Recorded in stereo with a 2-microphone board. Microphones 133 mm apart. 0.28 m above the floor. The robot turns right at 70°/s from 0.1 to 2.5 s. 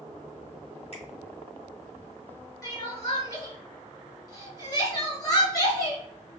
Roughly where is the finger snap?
Left.